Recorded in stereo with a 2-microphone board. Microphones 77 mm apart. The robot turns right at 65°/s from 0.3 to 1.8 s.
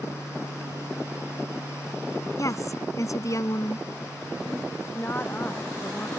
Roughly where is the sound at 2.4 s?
Left.